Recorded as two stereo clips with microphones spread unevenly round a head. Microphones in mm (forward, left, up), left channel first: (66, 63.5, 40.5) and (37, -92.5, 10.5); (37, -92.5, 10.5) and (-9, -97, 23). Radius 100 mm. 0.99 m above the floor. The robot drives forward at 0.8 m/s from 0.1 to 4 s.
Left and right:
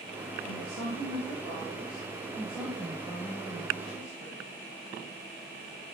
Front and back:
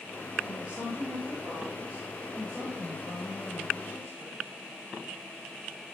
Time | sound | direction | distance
0.4 | a woman speaking | 110° right | 3 m